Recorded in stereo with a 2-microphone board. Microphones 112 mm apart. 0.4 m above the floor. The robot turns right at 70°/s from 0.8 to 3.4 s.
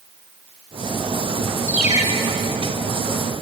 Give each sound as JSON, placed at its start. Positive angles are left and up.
{"t": 1.7, "sound": "a ringtone", "side_deg": 65, "distance_m": 4.0}